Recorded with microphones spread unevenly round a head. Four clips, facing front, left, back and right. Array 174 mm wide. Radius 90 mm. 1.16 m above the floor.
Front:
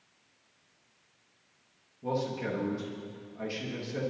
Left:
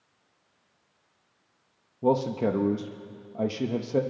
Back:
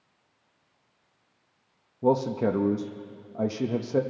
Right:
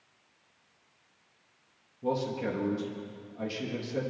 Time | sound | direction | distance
2.0 | a man speaking | 140° left | 1.0 m